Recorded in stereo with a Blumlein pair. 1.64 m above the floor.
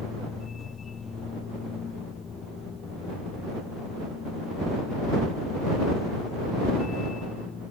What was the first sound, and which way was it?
A machine running, 20° left.